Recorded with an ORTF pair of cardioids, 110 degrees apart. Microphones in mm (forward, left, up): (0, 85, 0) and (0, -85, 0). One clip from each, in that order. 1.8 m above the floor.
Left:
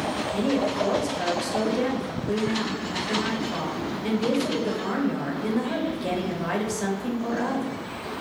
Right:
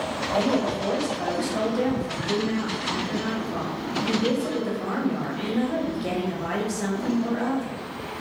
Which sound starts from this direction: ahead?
A woman speaking, at 0.3 s.